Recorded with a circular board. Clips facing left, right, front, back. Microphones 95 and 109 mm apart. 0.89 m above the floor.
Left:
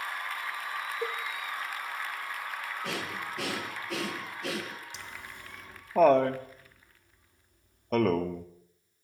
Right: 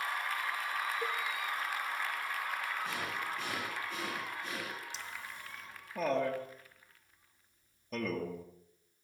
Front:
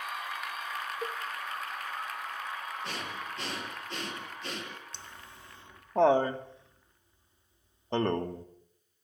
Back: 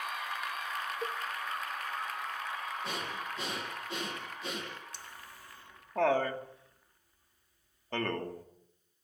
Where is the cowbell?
85° left, 0.5 m.